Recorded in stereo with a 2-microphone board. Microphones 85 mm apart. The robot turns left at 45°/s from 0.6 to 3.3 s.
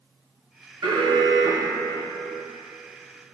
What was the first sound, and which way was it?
An alarm, 85° right.